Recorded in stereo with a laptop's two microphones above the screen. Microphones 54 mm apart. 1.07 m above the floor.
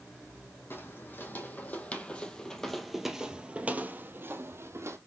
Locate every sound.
0.7 s footsteps: 40° left (ahead or behind), 2.5 m; by 5.0 s 55° right (ahead or behind), 2 m